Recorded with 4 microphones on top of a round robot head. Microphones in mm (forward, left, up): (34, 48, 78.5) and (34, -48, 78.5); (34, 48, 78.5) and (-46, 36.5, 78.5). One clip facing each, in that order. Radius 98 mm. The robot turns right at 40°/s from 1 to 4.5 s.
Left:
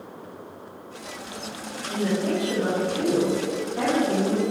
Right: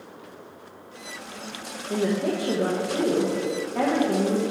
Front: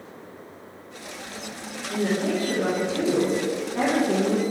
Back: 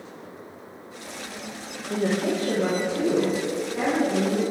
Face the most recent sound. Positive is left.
turn(degrees=-30)